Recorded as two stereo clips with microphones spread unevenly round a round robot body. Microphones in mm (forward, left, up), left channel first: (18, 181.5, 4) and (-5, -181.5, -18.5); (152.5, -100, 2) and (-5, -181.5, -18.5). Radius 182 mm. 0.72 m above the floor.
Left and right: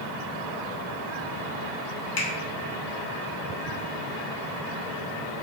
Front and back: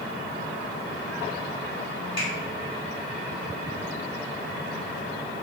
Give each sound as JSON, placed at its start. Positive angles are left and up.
{"t": 2.2, "sound": "a finger snap", "azimuth_deg": 100, "distance_m": 1.0}